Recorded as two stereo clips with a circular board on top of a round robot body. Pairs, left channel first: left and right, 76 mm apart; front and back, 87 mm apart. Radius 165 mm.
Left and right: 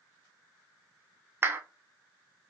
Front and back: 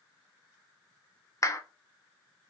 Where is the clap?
40° right, 0.5 m.